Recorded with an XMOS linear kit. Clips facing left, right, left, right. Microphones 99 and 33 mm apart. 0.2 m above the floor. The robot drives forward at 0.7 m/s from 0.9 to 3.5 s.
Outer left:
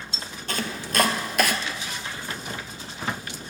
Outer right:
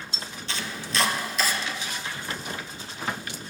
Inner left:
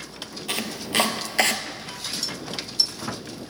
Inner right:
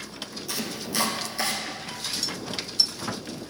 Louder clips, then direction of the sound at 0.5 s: Outer left 4 dB, inner left 5 dB; 55° left (ahead or behind).